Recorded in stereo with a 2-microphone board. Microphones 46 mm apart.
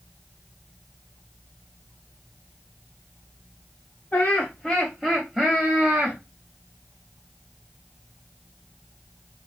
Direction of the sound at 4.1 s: 30° left (ahead or behind).